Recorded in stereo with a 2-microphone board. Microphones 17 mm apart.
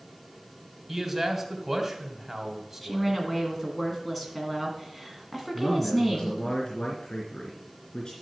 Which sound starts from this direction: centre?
A woman speaking, at 2.8 s.